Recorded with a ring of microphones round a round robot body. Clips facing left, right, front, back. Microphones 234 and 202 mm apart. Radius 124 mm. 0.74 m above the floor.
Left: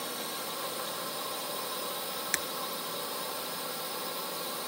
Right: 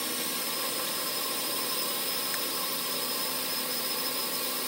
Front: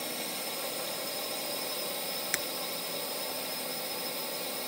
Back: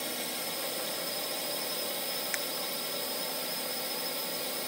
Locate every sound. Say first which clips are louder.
0.0 s a drone: right 3 dB, even; 95° right
2.3 s breaking glass: even, front 1 dB; 40° left